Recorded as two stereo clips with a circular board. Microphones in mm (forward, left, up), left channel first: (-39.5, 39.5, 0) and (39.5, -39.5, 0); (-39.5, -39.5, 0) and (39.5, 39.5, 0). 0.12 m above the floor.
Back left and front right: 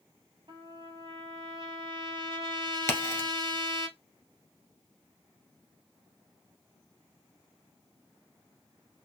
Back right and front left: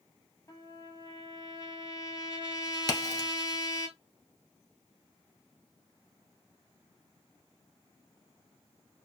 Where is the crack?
175° right, 1.4 m.